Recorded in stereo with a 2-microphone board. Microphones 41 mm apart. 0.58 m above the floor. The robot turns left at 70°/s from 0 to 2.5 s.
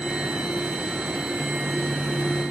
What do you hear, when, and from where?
Only background noise.